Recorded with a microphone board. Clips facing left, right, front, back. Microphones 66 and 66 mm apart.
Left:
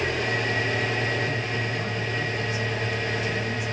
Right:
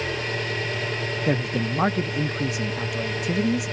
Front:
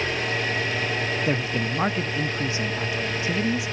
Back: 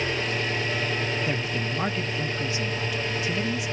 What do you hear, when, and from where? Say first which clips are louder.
0.0 s an engine running: left 2 dB, front 1 dB; 65° left, 9.5 m
1.3 s a man speaking: right 4 dB, front 3 dB; 70° right, 0.8 m